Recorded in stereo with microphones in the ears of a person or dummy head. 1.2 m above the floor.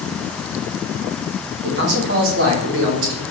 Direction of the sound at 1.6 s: 65° right (ahead or behind).